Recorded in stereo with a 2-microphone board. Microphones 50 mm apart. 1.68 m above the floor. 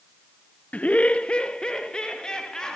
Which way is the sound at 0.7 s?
30° left (ahead or behind).